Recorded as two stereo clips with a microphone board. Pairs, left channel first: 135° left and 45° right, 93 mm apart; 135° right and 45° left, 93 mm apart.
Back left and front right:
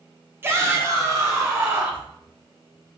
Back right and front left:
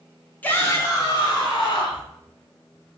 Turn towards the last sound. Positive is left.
turn(degrees=-105)